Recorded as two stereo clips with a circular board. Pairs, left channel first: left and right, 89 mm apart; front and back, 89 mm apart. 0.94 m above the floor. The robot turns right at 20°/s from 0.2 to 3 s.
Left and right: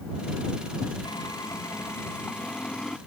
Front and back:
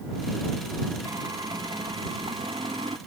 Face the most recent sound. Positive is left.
turn(degrees=175)